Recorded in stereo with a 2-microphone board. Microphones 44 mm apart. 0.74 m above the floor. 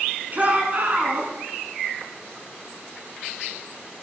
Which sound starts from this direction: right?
A shout, at 0.3 s.